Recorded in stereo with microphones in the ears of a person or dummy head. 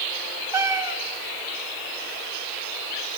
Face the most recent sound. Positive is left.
turn(degrees=-20)  # may be behind; listen again after turning